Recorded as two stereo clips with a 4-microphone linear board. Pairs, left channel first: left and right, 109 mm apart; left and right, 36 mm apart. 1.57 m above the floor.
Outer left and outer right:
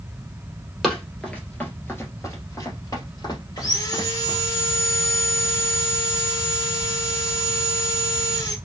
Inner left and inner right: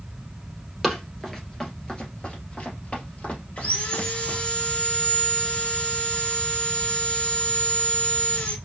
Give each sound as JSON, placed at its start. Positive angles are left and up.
{"t": 0.8, "sound": "running footsteps", "side_deg": 5, "distance_m": 1.7}
{"t": 3.6, "sound": "sawing", "side_deg": 40, "distance_m": 1.5}